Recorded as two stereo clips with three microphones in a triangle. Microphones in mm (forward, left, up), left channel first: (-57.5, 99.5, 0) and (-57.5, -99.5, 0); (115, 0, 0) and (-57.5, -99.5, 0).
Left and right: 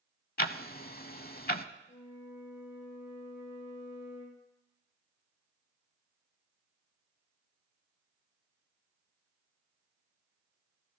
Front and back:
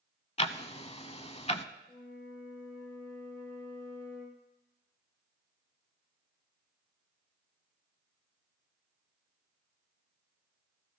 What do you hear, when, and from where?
0.4 s ticking: 75° left, 0.6 m
1.9 s a flute: 75° left, 3 m